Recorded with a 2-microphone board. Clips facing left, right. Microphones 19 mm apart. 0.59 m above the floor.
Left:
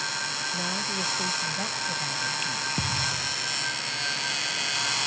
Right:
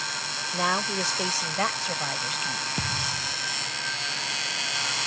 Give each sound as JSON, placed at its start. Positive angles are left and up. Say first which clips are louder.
{"t": 0.5, "sound": "a woman speaking", "louder": "right 3 dB", "side_deg": -70}
{"t": 2.8, "sound": "a thud", "louder": "even", "side_deg": -10}